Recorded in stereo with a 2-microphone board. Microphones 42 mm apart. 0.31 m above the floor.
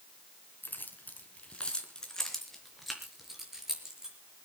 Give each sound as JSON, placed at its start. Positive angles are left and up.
{"t": 0.6, "sound": "keys jangling", "side_deg": 50, "distance_m": 3.0}